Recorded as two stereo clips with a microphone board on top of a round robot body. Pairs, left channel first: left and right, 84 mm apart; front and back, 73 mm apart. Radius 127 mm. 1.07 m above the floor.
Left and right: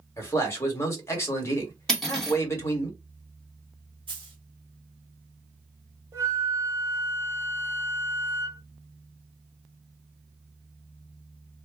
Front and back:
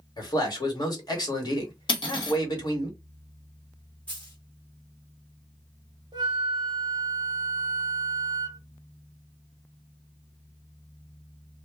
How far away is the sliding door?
I don't hear a sliding door.